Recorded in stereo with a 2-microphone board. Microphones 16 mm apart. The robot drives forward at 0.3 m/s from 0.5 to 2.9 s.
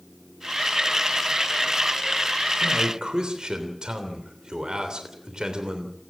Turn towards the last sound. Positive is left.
turn(degrees=-60)  # may be behind; listen again after turning